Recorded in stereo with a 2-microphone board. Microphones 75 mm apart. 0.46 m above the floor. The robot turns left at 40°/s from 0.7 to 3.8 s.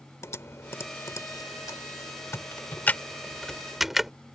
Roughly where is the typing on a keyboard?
Left.